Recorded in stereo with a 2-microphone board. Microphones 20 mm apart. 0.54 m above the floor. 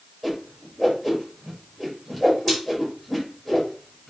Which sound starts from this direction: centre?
A whoosh, at 0.2 s.